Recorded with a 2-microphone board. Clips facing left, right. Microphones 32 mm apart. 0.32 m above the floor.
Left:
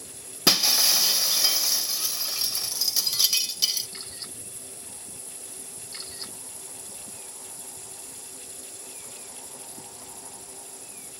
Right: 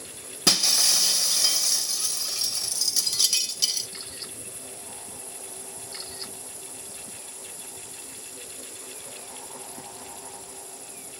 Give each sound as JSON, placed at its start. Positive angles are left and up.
{"t": 0.5, "sound": "breaking glass", "side_deg": 10, "distance_m": 0.5}